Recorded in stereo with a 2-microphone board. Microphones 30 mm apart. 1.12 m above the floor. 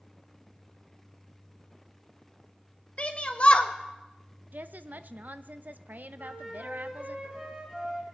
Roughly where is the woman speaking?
Right.